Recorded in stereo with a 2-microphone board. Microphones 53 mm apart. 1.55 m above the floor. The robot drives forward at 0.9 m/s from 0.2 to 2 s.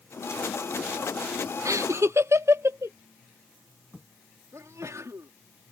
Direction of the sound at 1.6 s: 80° right.